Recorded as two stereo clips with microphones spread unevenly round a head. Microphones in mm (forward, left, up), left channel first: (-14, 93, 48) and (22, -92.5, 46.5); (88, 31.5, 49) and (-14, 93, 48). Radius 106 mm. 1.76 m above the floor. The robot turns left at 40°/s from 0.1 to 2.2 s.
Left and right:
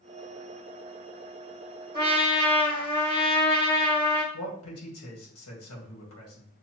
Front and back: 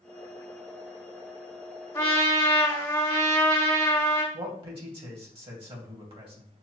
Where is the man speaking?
110° left, 1.8 m.